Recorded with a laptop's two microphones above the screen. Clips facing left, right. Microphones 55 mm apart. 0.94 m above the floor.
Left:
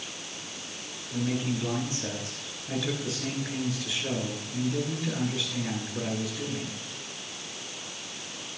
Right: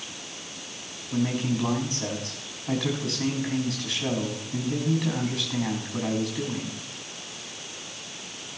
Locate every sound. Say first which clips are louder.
1.1 s a man speaking: right 3 dB; 65° right (ahead or behind), 7 m